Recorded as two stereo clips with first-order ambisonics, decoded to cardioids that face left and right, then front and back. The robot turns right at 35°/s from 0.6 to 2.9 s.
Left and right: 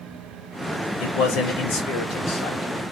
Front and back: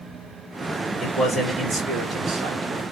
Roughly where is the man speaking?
Left.